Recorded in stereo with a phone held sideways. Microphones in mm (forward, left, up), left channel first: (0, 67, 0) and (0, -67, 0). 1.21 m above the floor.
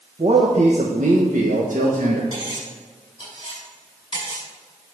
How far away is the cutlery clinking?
About 5.5 m.